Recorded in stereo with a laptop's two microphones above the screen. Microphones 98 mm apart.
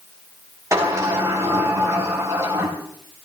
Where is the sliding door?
30° right (ahead or behind), 3.5 m.